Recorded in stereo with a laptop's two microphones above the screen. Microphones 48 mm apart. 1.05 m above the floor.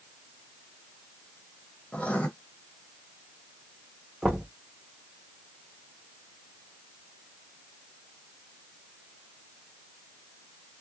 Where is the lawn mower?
No lawn mower in this recording.